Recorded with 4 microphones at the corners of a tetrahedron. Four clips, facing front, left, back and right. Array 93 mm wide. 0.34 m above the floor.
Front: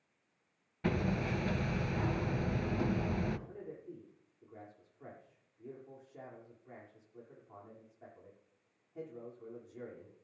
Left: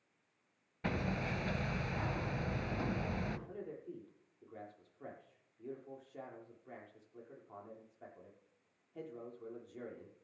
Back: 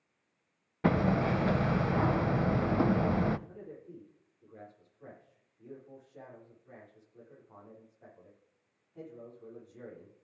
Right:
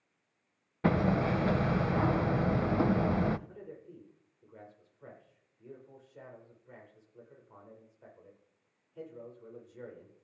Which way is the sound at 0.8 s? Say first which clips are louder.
Right 10 dB, back 7 dB; 140° right.